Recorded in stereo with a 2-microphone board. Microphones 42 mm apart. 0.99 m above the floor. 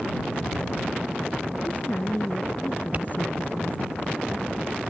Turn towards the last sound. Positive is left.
turn(degrees=-40)  # may be behind; listen again after turning